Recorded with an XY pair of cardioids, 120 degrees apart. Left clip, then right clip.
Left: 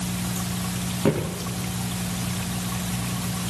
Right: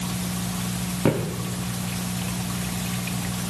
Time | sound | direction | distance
1.1 | footsteps | 10° right | 5.5 m